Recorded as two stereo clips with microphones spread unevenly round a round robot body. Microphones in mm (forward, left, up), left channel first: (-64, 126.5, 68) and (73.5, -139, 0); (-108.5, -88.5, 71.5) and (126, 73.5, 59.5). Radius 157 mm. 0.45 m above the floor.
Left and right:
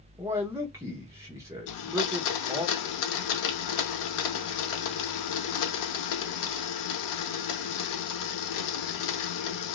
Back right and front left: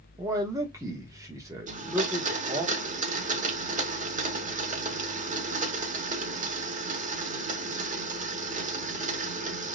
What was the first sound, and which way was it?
A man speaking, 25° right.